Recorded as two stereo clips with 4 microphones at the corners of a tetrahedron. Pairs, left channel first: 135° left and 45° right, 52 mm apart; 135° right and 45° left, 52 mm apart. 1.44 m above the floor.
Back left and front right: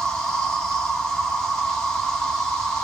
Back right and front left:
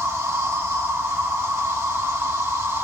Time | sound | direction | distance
0.0 | an insect | 55° left | 2 m